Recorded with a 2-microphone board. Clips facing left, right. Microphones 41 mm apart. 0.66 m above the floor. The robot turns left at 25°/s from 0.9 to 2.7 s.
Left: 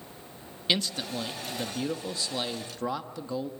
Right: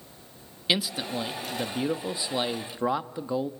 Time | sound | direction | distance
0.7 | a man speaking | 10° right (ahead or behind) | 1.0 m